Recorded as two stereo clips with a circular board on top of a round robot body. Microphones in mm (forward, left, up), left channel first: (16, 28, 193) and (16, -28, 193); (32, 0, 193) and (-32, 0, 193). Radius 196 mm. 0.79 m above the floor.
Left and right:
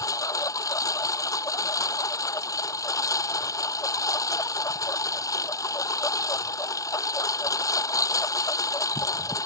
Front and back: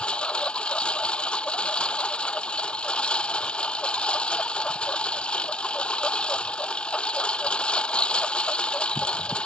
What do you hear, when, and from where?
0.0 s a lawn mower: 75° left